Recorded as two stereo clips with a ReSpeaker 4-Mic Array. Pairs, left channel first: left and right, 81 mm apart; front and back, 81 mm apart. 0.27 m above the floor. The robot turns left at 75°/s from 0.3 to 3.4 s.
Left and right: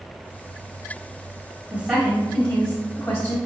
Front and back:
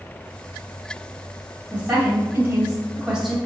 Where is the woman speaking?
140° right, 1.0 m; by 3.4 s 95° left, 1.0 m.